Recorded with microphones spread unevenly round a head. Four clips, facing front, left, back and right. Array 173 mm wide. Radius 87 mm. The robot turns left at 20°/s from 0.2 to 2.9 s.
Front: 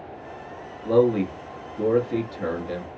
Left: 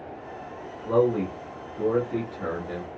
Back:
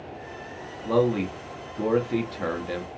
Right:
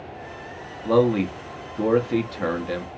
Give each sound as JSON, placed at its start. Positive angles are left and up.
{"t": 0.8, "sound": "a man speaking", "azimuth_deg": -95, "distance_m": 0.7}